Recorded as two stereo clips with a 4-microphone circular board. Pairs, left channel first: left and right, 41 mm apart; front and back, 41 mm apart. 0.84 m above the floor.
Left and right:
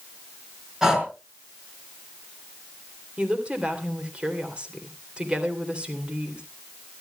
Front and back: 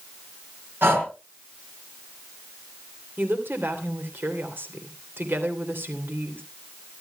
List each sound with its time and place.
0.8 s breathing: 165° right, 4 m
3.2 s a woman speaking: 150° right, 2.5 m